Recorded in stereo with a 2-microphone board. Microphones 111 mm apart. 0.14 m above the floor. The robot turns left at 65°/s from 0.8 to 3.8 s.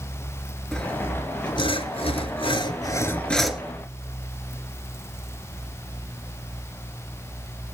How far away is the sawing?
About 1.1 m.